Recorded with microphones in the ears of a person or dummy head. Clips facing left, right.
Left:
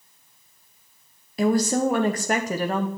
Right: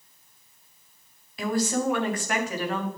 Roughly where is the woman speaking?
Left.